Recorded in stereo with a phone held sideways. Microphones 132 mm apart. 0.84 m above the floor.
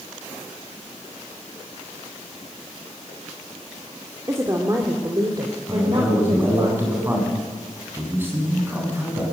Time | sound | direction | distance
4.3 | a woman speaking | 20° right (ahead or behind) | 2 m
5.7 | a man speaking | 15° right (ahead or behind) | 8.5 m